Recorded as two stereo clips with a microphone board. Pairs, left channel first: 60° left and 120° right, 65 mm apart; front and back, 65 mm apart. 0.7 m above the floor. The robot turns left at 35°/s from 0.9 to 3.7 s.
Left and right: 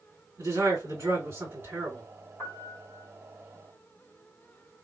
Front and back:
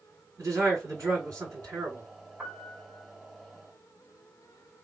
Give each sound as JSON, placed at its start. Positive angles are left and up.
{"t": 0.4, "sound": "a man speaking", "azimuth_deg": -145, "distance_m": 2.5}
{"t": 2.4, "sound": "a piano", "azimuth_deg": 110, "distance_m": 1.4}